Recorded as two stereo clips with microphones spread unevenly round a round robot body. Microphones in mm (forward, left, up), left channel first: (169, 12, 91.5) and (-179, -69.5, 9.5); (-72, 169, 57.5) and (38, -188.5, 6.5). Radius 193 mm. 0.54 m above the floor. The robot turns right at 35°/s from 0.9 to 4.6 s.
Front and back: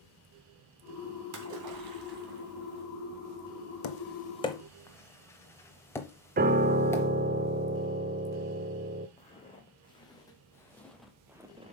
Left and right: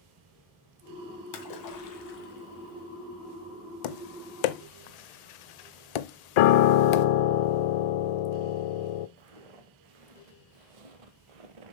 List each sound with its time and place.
1.3 s a splash: 140° left, 2 m; by 2.8 s 165° right, 2 m
3.8 s tapping: 70° left, 0.6 m; by 7.1 s 95° left, 0.6 m
6.4 s a piano: 125° left, 0.6 m
9.2 s footsteps: 60° right, 2.5 m; by 11.7 s 90° right, 0.8 m